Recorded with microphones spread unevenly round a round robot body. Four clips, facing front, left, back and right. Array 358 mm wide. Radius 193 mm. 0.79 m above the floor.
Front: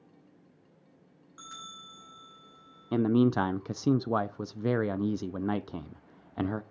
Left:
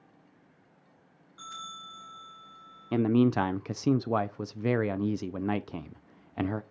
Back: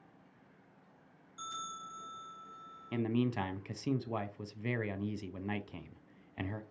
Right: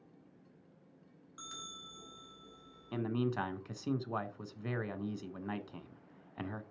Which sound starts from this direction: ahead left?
A man speaking, at 2.9 s.